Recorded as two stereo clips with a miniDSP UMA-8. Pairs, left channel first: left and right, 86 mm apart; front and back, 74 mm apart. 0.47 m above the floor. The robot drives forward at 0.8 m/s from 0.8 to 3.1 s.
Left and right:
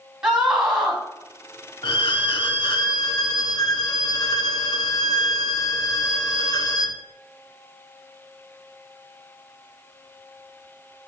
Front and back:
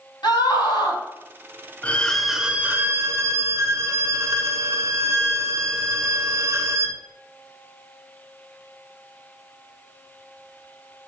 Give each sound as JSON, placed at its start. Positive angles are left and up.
{"t": 0.2, "sound": "a scream", "azimuth_deg": -10, "distance_m": 3.5}
{"t": 1.8, "sound": "a violin", "azimuth_deg": 65, "distance_m": 0.9}